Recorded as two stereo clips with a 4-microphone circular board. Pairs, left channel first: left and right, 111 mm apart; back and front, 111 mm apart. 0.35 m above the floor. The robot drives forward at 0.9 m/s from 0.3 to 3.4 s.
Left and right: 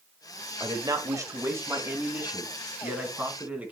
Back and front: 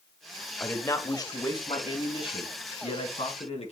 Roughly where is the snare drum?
No snare drum in this recording.